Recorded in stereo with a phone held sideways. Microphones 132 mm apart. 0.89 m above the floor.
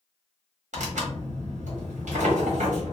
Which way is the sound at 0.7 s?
75° right (ahead or behind).